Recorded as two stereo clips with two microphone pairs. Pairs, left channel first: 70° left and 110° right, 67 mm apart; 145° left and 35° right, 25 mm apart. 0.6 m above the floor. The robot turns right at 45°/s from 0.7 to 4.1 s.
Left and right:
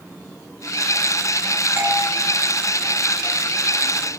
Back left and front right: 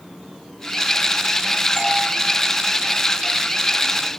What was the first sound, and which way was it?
A doorbell, 140° right.